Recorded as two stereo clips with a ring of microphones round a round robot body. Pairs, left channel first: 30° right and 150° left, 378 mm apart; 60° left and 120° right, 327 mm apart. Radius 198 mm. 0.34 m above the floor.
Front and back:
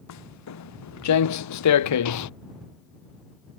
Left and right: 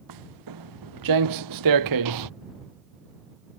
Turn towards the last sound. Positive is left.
turn(degrees=-80)